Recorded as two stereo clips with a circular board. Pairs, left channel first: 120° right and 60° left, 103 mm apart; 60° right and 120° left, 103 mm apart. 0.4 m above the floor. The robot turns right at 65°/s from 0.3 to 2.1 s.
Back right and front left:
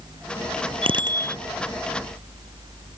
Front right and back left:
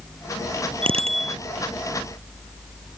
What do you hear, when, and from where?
0.8 s a bicycle bell: 90° left; by 1.4 s 125° left